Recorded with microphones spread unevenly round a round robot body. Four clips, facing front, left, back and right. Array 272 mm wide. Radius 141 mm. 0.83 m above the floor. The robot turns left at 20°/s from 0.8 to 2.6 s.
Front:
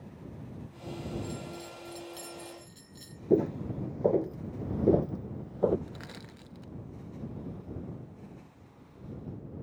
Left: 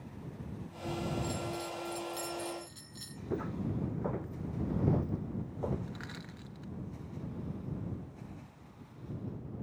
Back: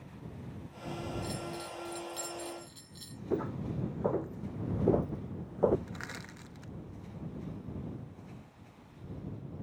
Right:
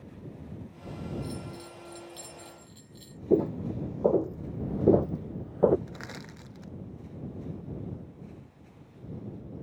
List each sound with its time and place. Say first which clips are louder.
1.2 s a bell: left 3 dB, back 1 dB; 145° left; by 3.2 s 120° left
3.3 s footsteps: right 11 dB, front 8 dB; 55° right; by 5.8 s 85° right
5.9 s crushing: right 3 dB, back 1 dB; 90° right